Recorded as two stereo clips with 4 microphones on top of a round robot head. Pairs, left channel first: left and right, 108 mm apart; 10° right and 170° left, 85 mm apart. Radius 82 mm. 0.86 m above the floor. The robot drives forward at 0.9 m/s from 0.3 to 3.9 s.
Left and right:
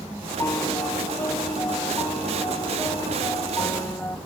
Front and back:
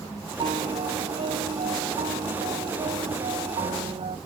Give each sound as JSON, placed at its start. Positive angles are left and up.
{"t": 0.4, "sound": "a piano", "azimuth_deg": 155}